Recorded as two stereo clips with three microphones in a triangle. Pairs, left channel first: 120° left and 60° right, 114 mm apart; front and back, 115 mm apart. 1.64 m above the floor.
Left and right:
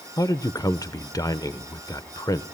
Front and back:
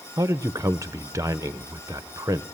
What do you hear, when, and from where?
0.2 s a man speaking: 145° left, 0.6 m